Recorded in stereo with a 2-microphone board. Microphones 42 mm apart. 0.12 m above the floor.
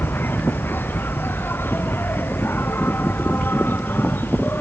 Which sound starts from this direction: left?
An insect, at 0.0 s.